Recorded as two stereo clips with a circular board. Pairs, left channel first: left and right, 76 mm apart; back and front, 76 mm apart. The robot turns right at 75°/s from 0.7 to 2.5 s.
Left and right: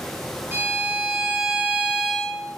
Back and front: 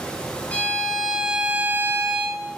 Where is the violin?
125° right, 1.6 m; by 2.4 s 5° left, 1.6 m.